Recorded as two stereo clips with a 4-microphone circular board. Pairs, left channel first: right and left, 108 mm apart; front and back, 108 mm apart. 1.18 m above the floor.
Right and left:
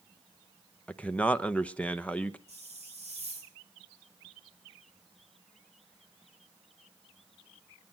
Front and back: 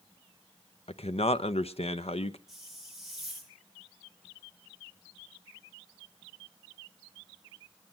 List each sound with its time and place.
0.9 s a man speaking: 10° right, 0.9 m
2.5 s a hiss: 95° left, 3 m